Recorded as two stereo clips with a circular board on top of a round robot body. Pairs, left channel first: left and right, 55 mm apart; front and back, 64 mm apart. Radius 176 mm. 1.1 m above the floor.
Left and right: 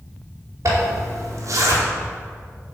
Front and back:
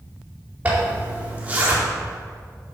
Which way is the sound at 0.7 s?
115° right.